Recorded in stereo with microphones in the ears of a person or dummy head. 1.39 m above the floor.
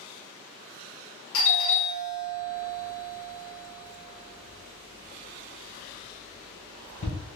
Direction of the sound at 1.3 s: 75° left (ahead or behind).